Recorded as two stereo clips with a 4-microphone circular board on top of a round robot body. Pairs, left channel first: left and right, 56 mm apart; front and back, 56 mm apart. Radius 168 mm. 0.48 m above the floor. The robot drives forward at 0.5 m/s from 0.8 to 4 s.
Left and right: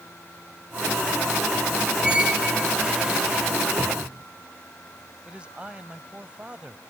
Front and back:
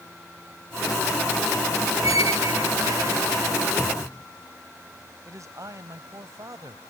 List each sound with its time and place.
2.0 s a squeak: 160° right; by 3.5 s 165° right
3.8 s a cupboard door: 90° right
5.2 s a man speaking: 160° right